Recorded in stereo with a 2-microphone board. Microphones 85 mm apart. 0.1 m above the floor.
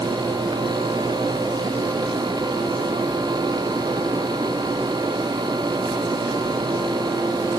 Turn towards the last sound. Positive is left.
No sound to turn to.